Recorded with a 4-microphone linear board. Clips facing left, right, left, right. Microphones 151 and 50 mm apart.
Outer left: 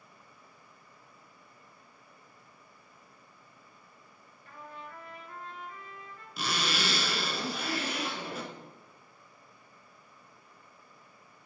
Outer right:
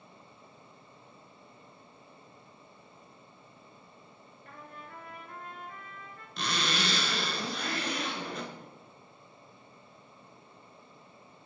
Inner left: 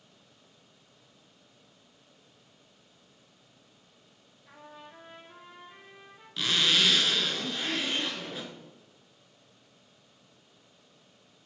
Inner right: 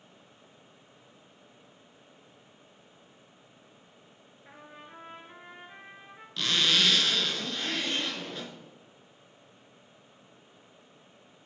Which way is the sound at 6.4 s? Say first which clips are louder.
Even, even; 5° left (ahead or behind).